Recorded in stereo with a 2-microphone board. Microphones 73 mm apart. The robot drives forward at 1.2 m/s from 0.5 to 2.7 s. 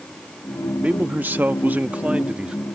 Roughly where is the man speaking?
Centre.